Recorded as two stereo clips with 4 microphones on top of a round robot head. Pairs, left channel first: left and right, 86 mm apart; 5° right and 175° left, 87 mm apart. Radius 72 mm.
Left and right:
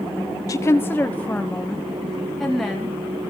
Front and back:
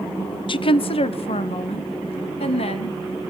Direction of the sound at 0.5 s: 30° left.